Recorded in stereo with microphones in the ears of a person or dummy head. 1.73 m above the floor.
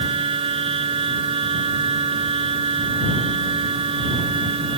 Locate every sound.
0.0 s a machine running: 30° right (ahead or behind)